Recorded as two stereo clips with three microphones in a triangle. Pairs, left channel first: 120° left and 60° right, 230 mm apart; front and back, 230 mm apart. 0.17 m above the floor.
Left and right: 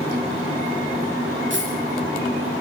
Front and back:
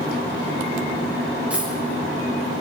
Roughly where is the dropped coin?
Right.